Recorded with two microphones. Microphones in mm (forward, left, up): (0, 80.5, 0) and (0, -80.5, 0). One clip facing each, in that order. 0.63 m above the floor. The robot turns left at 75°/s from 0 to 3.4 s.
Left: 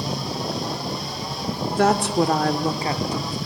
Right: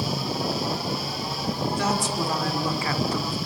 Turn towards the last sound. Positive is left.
turn(degrees=-5)